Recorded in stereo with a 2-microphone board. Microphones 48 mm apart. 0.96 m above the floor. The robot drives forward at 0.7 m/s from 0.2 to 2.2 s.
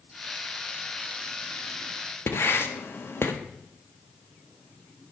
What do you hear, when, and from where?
2.3 s writing: 55° left (ahead or behind), 1.2 m